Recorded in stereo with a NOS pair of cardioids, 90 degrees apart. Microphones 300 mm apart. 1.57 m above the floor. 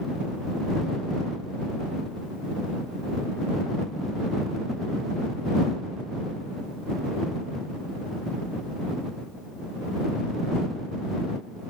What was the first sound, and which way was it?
Only background noise.